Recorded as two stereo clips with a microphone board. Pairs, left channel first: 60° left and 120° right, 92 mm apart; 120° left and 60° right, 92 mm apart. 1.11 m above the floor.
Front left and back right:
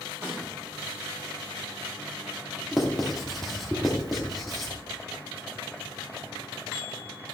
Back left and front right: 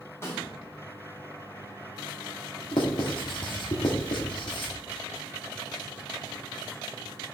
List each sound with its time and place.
0.2 s a snare drum: straight behind, 3 m
2.7 s writing: 150° left, 1.4 m